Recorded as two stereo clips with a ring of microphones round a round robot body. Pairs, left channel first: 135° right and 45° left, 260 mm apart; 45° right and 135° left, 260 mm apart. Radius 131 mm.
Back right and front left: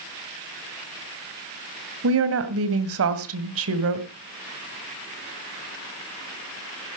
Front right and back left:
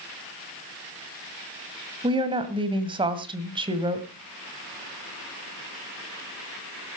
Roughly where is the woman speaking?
Ahead left.